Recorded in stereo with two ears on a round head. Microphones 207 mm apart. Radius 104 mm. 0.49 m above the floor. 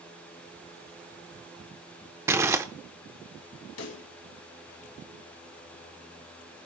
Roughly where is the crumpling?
Centre.